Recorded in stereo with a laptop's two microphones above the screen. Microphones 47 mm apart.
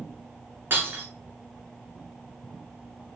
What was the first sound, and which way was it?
Breaking glass, 50° right (ahead or behind).